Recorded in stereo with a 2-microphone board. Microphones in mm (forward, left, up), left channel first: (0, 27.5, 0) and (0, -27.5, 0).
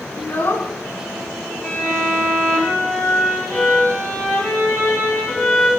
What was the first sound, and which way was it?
A child speaking, 40° left (ahead or behind).